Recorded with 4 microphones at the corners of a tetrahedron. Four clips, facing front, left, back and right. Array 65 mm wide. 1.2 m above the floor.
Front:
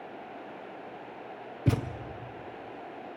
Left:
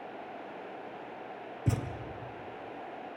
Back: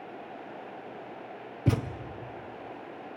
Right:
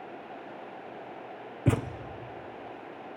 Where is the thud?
95° right, 0.6 m.